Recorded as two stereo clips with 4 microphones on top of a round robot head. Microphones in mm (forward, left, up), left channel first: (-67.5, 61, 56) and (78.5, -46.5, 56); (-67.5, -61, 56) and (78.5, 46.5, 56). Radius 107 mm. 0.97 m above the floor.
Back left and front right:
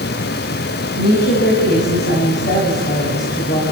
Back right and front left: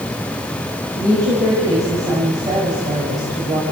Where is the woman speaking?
110° left, 6 m.